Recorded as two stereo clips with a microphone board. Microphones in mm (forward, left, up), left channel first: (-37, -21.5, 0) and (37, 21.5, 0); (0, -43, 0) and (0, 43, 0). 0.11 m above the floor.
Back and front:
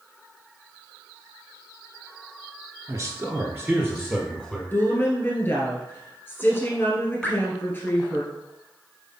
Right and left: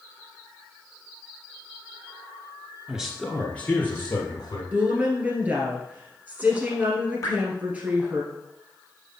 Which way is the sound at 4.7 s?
155° left.